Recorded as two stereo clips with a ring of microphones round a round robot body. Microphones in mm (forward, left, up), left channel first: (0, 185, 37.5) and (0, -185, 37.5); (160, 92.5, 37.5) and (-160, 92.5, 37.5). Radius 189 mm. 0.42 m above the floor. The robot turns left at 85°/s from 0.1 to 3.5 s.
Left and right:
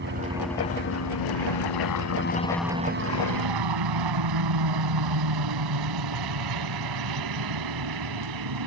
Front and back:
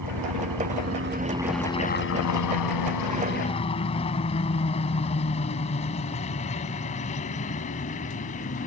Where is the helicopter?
150° right; by 8.7 s 70° right.